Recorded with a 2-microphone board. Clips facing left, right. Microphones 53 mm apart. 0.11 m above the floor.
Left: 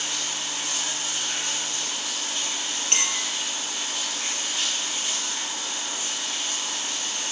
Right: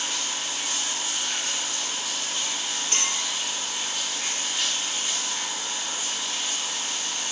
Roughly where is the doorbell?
No doorbell in this recording.